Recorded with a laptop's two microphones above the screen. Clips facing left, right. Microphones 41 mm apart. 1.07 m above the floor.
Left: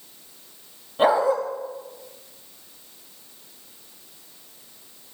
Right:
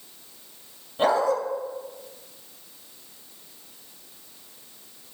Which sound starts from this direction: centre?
A dog barking, at 1.0 s.